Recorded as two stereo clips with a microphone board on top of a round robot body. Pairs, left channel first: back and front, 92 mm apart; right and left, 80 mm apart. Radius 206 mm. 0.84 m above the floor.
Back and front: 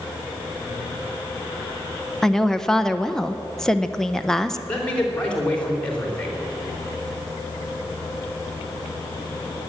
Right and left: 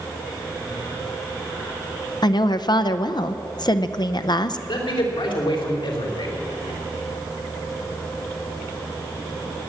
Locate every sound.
2.2 s a woman speaking: 95° right, 0.8 m
4.7 s a man speaking: 100° right, 3 m